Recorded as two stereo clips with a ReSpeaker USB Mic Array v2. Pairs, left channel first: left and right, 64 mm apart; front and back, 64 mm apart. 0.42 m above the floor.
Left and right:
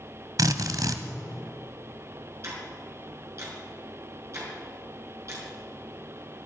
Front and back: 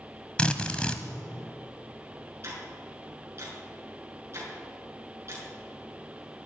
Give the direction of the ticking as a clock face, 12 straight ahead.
4 o'clock.